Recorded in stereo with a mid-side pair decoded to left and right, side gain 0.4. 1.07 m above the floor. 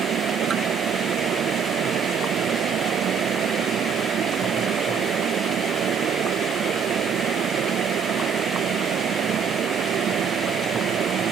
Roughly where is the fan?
Right.